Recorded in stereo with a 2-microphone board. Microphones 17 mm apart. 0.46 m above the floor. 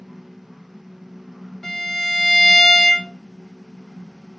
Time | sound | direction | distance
1.6 | a violin | 20° left (ahead or behind) | 1.4 m